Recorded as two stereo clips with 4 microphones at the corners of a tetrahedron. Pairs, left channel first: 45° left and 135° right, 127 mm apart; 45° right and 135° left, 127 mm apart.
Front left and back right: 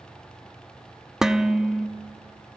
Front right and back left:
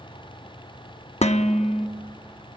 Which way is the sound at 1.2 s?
50° right.